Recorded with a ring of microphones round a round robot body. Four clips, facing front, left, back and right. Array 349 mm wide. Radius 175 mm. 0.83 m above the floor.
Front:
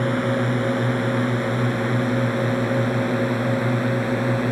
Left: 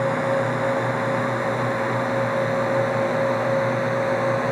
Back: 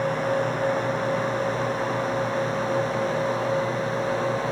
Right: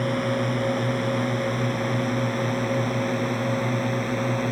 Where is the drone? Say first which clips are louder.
Left 3 dB, front 2 dB; 10° right.